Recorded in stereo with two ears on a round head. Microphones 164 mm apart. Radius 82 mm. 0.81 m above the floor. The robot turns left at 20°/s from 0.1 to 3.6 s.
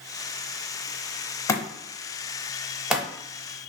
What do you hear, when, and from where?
1.5 s a thud: 15° left (ahead or behind), 0.7 m; by 3.1 s 10° right (ahead or behind), 0.7 m